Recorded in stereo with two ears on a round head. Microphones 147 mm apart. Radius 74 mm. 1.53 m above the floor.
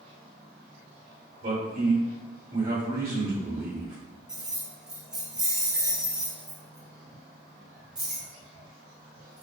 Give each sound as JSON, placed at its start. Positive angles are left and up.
{"t": 1.4, "sound": "a man speaking", "side_deg": -50, "distance_m": 1.4}
{"t": 4.3, "sound": "keys jangling", "side_deg": -5, "distance_m": 0.7}